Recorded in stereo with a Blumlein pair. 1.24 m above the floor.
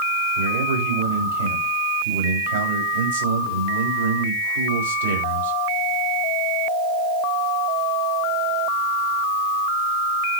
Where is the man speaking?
65° right, 8 m.